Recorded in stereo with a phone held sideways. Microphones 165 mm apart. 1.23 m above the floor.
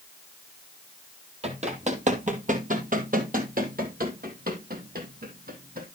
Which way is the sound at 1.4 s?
40° right (ahead or behind).